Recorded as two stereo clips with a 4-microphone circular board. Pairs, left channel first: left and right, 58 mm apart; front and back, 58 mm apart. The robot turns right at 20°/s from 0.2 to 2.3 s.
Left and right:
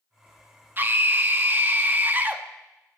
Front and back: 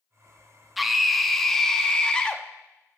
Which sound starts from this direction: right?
A scream, at 0.8 s.